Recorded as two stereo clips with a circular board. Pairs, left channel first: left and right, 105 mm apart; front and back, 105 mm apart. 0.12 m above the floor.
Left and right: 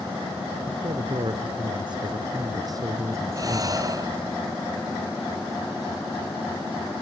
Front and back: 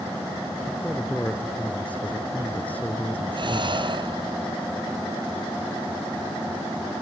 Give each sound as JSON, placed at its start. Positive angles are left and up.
{"t": 0.7, "sound": "a man speaking", "azimuth_deg": -75, "distance_m": 2.5}
{"t": 3.3, "sound": "breathing", "azimuth_deg": -140, "distance_m": 0.7}